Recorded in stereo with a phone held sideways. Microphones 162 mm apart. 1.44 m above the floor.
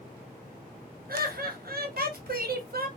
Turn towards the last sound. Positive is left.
turn(degrees=-65)  # may be behind; listen again after turning